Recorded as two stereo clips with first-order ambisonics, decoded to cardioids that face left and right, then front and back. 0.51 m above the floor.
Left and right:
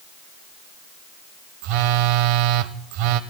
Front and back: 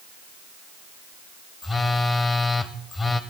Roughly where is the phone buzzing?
Right.